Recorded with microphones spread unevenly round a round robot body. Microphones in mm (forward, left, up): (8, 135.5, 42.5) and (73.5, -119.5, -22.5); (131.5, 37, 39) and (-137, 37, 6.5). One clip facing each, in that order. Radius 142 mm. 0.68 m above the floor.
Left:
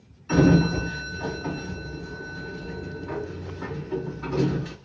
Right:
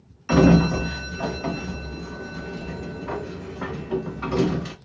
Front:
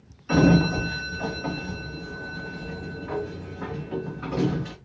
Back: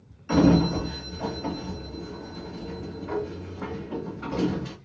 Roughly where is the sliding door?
Right.